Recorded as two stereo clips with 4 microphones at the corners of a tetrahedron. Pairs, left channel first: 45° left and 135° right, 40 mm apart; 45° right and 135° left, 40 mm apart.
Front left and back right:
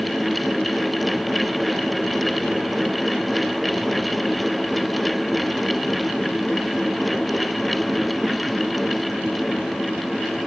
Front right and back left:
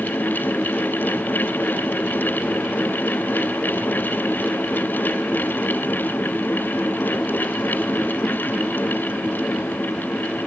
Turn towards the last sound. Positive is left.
No sound to turn to.